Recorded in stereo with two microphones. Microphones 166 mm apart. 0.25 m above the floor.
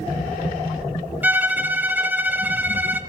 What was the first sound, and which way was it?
A violin, 10° right (ahead or behind).